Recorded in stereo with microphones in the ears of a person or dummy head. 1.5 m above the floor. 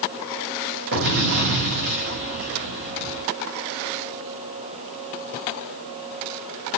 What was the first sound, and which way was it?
An explosion, 50° right (ahead or behind).